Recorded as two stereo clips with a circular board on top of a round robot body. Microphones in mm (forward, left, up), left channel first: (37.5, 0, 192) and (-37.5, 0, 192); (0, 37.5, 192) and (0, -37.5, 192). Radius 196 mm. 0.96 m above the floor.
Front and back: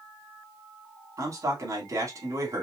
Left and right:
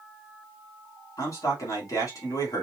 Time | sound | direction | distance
1.2 | a man speaking | 135° left | 3 m